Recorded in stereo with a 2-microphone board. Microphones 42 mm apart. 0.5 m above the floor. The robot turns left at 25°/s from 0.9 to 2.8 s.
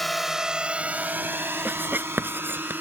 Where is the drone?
5° left (ahead or behind); by 2.8 s 55° right (ahead or behind).